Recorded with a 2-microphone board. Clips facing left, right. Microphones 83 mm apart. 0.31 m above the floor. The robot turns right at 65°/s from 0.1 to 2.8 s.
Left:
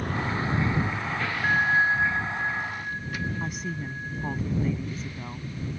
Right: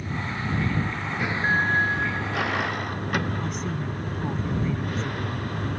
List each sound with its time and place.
0.0 s a vehicle: 125° left; by 5.8 s 60° right
1.4 s a bell: 10° right; by 4.4 s 80° left
3.4 s a woman speaking: 5° left (ahead or behind)